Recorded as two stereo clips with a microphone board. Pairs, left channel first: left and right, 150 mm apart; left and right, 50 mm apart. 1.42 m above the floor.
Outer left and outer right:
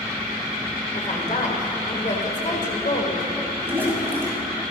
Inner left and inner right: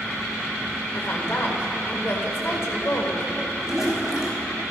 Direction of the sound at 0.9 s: 50° left (ahead or behind).